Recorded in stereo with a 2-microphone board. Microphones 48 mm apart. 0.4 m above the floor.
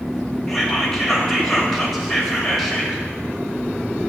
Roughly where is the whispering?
Centre.